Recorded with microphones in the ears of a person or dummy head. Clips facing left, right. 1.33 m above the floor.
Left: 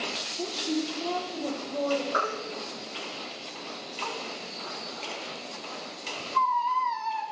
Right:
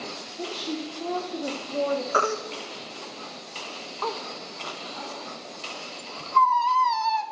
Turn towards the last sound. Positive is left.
turn(degrees=-65)  # may be behind; listen again after turning